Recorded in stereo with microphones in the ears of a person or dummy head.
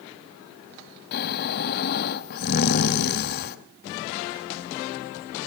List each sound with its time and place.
1.1 s snoring: 55° left (ahead or behind), 1.2 m